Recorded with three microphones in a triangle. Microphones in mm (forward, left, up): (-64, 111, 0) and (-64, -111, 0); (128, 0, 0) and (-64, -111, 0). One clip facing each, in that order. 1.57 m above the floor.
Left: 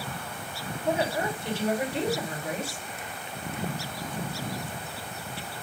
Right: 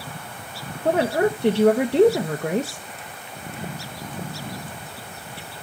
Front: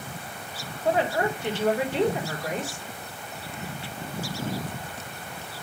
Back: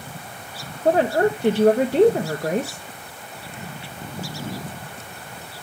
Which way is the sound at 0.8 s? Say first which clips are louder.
Right 8 dB, back 7 dB; 100° right.